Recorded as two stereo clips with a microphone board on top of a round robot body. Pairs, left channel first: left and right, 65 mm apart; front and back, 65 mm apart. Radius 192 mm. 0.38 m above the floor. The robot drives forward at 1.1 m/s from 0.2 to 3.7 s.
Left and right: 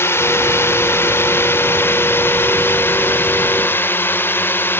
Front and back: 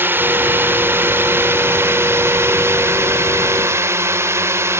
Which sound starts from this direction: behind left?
A drone, at 0.0 s.